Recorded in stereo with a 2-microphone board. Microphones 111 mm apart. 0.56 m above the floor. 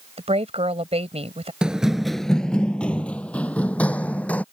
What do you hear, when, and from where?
0.2 s a woman speaking: 70° right (ahead or behind)
1.6 s running footsteps: 5° right (ahead or behind); by 4.4 s 15° left (ahead or behind)